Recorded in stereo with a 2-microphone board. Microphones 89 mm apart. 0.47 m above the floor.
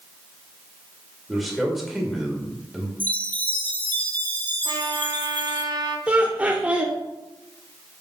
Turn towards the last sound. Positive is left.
turn(degrees=-15)  # may be behind; listen again after turning